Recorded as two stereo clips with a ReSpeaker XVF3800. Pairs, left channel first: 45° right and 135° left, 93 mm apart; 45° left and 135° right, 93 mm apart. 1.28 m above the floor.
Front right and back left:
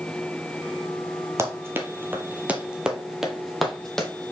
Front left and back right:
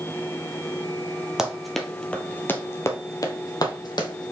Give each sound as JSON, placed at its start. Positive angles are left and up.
{"t": 1.4, "sound": "running footsteps", "azimuth_deg": 150, "distance_m": 1.4}